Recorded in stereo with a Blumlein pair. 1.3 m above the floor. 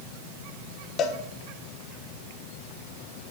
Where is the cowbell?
30° left, 0.8 m.